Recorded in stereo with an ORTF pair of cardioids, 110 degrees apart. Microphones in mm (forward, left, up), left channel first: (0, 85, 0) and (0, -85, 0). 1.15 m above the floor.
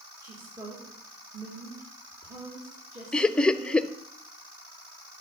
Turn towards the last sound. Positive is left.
turn(degrees=5)